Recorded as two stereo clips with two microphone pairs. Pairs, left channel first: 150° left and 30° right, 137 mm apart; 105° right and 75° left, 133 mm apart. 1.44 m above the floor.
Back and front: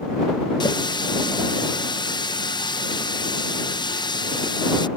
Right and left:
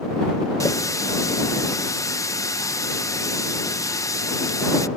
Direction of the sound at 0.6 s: 160° right.